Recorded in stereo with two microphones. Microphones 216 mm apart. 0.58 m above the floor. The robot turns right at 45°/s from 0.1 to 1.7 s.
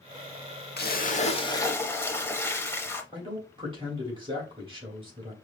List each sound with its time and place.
0.8 s a splash: 125° left, 0.6 m; by 3.0 s 165° left, 0.6 m
3.1 s a man speaking: 25° right (ahead or behind), 2 m